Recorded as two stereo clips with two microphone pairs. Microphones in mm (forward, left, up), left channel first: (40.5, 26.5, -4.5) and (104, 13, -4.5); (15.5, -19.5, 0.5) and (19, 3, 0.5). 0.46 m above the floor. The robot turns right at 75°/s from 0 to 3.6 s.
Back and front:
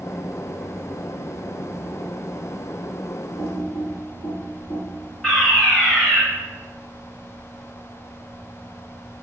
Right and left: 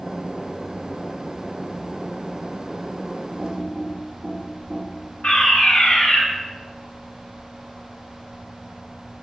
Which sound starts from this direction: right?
A fire alarm, at 5.2 s.